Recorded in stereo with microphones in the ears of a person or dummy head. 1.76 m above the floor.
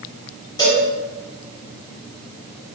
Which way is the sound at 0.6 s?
25° left (ahead or behind).